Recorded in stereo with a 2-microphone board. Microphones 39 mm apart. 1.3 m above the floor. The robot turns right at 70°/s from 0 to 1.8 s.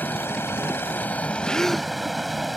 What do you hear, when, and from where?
0.0 s running water: 50° left; by 2.6 s straight behind
1.4 s a gasp: 30° left (ahead or behind); by 1.9 s 5° left (ahead or behind)